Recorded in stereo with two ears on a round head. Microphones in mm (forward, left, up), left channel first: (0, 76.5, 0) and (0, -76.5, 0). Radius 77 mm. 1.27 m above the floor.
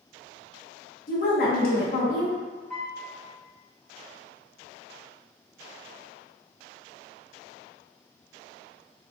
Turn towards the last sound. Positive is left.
turn(degrees=0)  # may be behind; listen again after turning